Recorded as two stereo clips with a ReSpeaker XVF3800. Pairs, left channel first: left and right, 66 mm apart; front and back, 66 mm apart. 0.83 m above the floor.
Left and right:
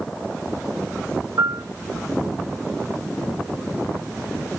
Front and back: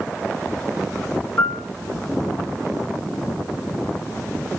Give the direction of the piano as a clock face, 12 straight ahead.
2 o'clock.